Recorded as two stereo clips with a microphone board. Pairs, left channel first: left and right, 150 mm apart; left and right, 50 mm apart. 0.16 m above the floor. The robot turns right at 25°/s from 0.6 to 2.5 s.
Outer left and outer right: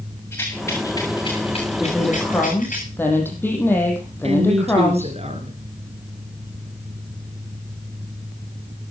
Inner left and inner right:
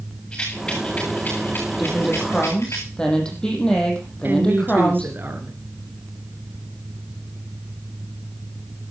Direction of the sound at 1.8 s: 5° right (ahead or behind).